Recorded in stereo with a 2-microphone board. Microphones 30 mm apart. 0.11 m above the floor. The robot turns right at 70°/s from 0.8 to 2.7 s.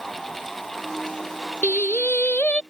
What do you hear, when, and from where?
1.6 s singing: 65° left; by 2.6 s 130° left